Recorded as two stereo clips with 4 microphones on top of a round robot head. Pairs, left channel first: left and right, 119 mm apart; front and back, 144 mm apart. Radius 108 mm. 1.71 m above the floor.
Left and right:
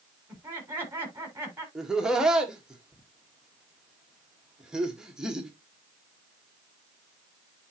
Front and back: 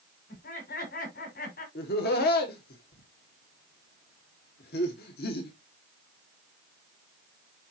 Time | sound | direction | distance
0.3 | laughter | 20° right | 5.5 m
1.8 | laughter | 5° right | 1.6 m